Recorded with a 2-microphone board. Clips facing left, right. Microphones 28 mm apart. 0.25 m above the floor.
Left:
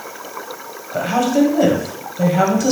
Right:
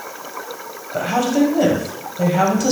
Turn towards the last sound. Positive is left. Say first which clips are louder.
# left 1 dB
turn(degrees=5)  # may be behind; listen again after turning